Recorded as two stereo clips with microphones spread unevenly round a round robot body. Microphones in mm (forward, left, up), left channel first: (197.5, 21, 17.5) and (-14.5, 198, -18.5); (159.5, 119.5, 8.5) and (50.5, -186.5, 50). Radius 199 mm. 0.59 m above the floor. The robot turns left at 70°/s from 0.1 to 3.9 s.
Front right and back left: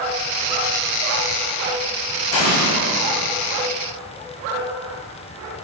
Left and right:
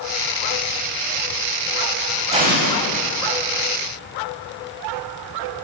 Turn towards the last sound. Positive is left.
turn(degrees=-145)